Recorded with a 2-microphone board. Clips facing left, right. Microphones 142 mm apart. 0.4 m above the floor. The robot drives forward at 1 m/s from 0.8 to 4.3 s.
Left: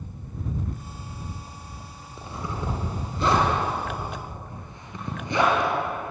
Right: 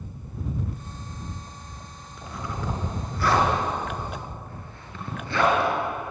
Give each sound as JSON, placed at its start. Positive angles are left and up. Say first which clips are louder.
{"t": 2.2, "sound": "a zipper", "louder": "left 1 dB", "side_deg": 25, "distance_m": 4.5}